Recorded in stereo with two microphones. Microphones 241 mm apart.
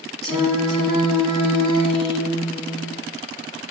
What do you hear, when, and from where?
0.2 s singing: 20° left (ahead or behind), 1.2 m